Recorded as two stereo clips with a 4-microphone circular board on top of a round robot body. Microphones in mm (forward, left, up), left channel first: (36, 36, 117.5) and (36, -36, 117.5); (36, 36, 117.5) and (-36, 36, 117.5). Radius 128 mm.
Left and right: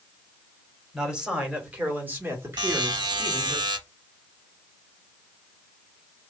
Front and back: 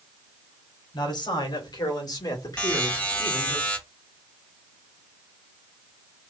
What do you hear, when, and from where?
0.9 s a man speaking: 5° right, 1.9 m; by 3.6 s 50° right, 1.9 m
2.6 s a buzzer: 75° right, 1.1 m